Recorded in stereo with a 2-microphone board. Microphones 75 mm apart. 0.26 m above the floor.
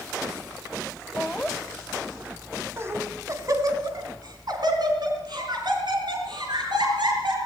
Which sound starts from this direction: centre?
Laughter, at 1.2 s.